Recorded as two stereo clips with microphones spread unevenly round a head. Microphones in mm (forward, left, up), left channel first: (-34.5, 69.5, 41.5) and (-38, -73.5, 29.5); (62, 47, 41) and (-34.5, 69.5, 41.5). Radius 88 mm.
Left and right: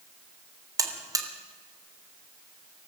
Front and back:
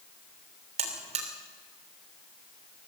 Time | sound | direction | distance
0.8 | a buzzer | 160° right | 3 m